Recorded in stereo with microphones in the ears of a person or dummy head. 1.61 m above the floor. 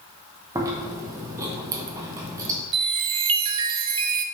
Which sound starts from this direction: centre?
Chewing, at 0.6 s.